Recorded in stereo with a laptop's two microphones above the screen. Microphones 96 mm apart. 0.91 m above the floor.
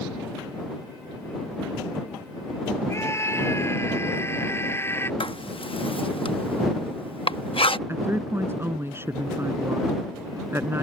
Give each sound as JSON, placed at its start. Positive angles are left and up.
{"t": 2.9, "sound": "a scream", "side_deg": 30}
{"t": 5.2, "sound": "writing", "side_deg": 70}
{"t": 7.9, "sound": "a woman speaking", "side_deg": -25}